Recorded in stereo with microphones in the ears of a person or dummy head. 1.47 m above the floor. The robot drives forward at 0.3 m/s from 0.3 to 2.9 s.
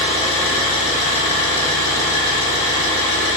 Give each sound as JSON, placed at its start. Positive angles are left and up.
{"t": 0.0, "sound": "an engine running", "side_deg": 40, "distance_m": 2.0}